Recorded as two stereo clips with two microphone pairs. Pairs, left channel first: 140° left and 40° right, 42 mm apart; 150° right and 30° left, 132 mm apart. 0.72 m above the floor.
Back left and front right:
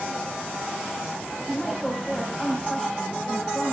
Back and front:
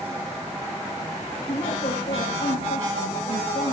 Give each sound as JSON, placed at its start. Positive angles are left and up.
{"t": 1.5, "sound": "a woman speaking", "azimuth_deg": -125, "distance_m": 5.0}